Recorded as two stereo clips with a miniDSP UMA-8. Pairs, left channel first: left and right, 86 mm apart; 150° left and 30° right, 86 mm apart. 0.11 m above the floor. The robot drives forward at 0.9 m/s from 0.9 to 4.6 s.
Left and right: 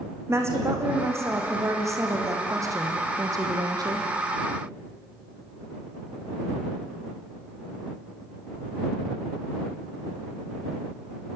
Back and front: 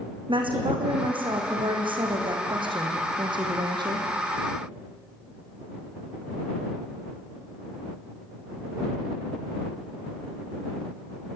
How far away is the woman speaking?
About 6 m.